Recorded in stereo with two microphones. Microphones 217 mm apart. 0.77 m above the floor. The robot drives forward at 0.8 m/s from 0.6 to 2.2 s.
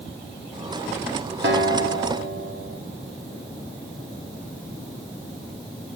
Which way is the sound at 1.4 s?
60° right (ahead or behind).